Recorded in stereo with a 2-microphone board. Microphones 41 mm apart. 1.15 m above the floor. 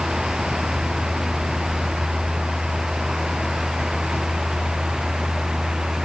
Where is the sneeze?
No sneeze in this recording.